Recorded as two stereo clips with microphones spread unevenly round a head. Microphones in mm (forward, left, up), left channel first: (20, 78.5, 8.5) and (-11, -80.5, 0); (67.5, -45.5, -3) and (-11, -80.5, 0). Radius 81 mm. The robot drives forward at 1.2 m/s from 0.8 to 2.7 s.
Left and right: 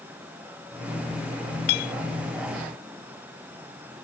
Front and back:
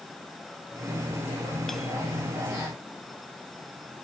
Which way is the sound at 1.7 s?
110° left.